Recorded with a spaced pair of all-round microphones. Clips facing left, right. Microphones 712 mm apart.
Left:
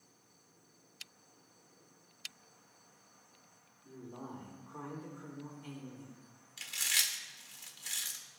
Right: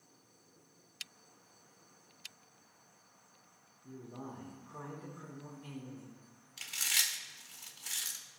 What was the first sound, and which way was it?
A man speaking, 55° right (ahead or behind).